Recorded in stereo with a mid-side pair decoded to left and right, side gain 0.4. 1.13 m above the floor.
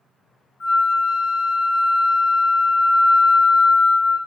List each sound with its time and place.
0.6 s a flute: 60° left, 0.6 m